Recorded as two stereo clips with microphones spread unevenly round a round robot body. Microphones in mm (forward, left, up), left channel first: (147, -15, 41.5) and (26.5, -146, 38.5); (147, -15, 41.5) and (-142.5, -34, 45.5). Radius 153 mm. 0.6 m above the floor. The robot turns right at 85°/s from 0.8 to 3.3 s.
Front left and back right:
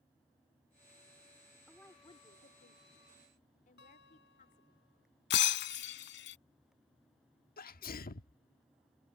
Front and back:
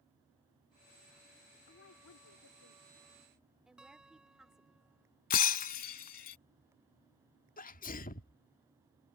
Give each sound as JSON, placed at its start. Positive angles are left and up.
{"t": 1.7, "sound": "a woman speaking", "azimuth_deg": -45}
{"t": 3.8, "sound": "a guitar", "azimuth_deg": 95}
{"t": 5.3, "sound": "breaking glass", "azimuth_deg": 65}
{"t": 7.6, "sound": "a sneeze", "azimuth_deg": 60}